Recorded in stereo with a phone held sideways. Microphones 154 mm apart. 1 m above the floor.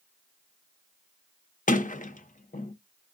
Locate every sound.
1.7 s a sliding door: 55° left (ahead or behind), 0.5 m